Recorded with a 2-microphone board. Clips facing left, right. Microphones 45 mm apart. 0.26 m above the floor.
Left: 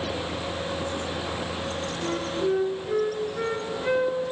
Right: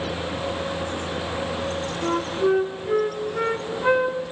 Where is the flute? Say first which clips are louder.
Right 5 dB; 55° right (ahead or behind), 1.1 m.